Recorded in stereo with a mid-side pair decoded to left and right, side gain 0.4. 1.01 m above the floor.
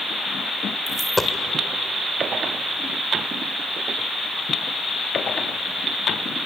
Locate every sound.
0.9 s a dropped coin: 5° left, 1.9 m